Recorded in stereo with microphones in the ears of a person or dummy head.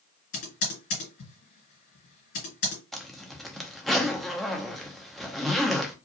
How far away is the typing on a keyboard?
About 2.5 m.